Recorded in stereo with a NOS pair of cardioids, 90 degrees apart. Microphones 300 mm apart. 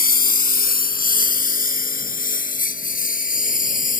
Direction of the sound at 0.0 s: 30° left.